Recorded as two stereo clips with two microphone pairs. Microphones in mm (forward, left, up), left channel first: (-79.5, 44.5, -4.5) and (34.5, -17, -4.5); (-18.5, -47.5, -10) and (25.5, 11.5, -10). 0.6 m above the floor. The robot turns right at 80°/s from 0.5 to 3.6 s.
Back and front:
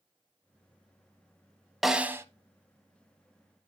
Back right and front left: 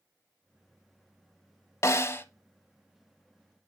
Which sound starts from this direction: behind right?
A snare drum, at 1.8 s.